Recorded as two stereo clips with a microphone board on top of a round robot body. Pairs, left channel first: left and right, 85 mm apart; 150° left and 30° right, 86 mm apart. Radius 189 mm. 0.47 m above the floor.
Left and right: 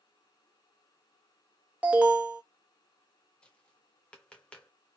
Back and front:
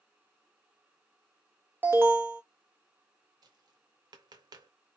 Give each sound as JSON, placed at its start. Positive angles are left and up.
{"t": 1.8, "sound": "an alarm", "azimuth_deg": -35, "distance_m": 1.6}
{"t": 3.4, "sound": "tapping", "azimuth_deg": 10, "distance_m": 0.5}